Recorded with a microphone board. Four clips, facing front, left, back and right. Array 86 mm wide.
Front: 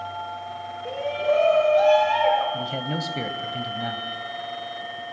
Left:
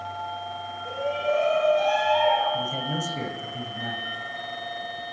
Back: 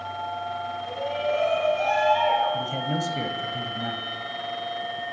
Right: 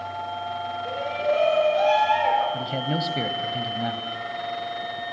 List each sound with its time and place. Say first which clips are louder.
0.8 s a shout: even, front 5 dB; 20° right, 9 m; by 2.4 s 25° right, 10 m
2.5 s a man speaking: right 2 dB, back 1 dB; 60° right, 1.0 m